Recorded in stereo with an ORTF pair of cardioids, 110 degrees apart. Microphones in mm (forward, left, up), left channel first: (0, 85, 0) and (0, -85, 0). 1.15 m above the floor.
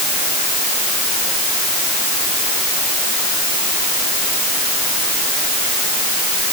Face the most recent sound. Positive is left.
No sound to turn to.